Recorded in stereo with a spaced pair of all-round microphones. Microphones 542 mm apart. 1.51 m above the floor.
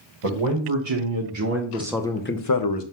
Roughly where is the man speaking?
Right.